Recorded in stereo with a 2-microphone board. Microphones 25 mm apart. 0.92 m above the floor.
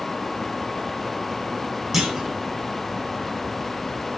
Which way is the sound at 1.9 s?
15° right (ahead or behind).